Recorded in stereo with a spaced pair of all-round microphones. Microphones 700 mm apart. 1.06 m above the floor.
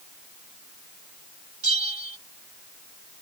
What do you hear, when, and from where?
1.6 s a bell: 65° right (ahead or behind)